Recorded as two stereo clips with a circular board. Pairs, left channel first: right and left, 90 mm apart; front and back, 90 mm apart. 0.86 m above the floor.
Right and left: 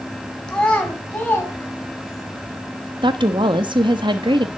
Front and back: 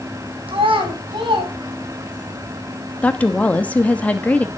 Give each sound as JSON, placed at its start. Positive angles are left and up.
{"t": 0.5, "sound": "a child speaking", "azimuth_deg": -170, "distance_m": 3.5}
{"t": 3.0, "sound": "a woman speaking", "azimuth_deg": 70, "distance_m": 1.2}